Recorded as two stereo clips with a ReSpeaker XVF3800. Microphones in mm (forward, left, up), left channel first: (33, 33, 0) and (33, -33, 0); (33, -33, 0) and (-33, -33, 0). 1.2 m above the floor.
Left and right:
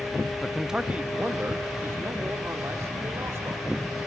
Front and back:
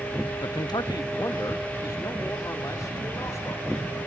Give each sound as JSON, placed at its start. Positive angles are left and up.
{"t": 0.4, "sound": "a man speaking", "azimuth_deg": 10, "distance_m": 0.7}